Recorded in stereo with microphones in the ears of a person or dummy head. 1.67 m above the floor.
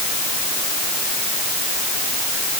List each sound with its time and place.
Only background noise.